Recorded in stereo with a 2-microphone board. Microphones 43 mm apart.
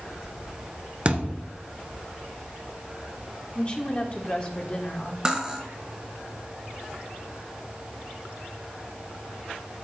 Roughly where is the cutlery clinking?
Centre.